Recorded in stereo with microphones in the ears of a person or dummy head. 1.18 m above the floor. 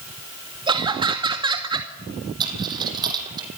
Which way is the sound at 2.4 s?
25° right (ahead or behind).